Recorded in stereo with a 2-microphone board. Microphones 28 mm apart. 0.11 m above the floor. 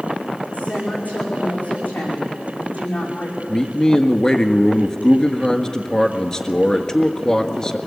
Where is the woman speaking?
65° left (ahead or behind), 9 m.